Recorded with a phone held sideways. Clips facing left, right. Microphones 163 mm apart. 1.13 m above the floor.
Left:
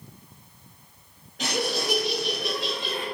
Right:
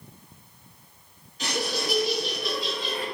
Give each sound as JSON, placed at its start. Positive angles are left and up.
{"t": 1.4, "sound": "laughter", "side_deg": 75, "distance_m": 2.0}